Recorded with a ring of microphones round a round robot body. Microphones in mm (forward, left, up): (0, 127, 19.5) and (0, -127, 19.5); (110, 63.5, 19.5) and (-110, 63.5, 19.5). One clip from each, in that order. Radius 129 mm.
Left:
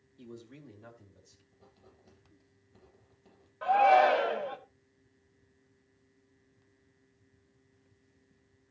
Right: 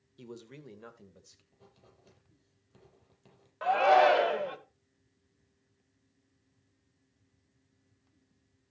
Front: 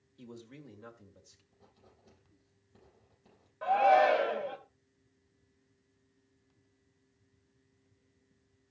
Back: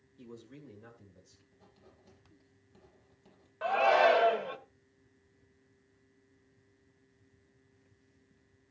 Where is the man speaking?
65° right, 1.8 m; by 1.4 s 60° right, 3 m.